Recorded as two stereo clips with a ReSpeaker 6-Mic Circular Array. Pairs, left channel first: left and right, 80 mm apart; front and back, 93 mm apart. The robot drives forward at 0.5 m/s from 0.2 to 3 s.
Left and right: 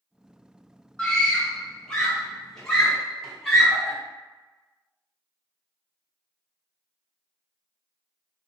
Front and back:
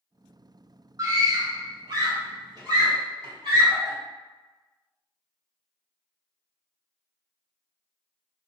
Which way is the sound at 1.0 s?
165° left.